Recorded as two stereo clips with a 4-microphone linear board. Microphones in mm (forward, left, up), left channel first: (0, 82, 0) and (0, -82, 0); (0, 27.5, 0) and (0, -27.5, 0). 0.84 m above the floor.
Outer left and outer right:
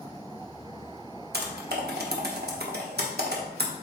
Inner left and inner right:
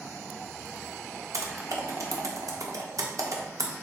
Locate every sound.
1.3 s typing on a keyboard: 75° right (ahead or behind), 0.8 m